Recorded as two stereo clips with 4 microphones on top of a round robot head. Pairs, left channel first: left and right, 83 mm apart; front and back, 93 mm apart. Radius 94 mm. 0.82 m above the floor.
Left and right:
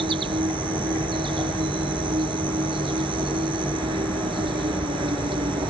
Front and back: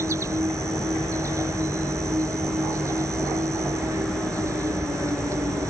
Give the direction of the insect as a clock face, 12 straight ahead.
4 o'clock.